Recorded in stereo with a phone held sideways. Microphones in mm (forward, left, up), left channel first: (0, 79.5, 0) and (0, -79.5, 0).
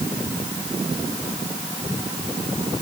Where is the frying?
No frying in this recording.